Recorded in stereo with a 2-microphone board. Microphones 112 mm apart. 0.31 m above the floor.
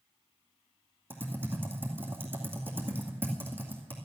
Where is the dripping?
No dripping in this recording.